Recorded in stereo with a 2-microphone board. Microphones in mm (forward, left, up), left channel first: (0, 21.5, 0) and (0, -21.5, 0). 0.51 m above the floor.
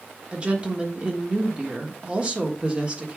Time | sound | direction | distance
0.3 | a woman speaking | 25° right (ahead or behind) | 1.4 m